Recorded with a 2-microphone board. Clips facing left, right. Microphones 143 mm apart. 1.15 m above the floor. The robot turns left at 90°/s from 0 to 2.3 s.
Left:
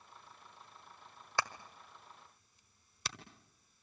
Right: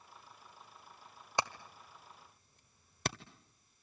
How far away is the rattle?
No rattle in this recording.